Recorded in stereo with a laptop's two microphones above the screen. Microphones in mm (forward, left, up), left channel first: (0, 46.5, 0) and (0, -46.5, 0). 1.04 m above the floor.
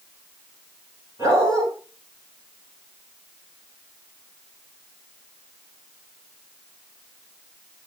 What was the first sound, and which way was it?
A dog barking, 40° right (ahead or behind).